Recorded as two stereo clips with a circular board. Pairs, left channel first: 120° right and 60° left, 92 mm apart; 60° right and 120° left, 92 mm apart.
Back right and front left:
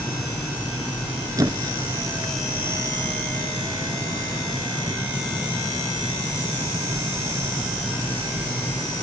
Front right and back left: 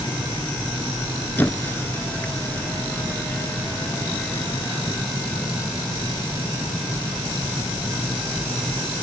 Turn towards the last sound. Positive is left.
turn(degrees=10)